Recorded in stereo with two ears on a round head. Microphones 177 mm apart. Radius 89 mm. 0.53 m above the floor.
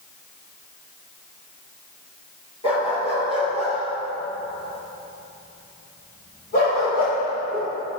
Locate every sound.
2.6 s a dog barking: 30° left (ahead or behind), 4.5 m; by 7.7 s 45° left (ahead or behind), 8 m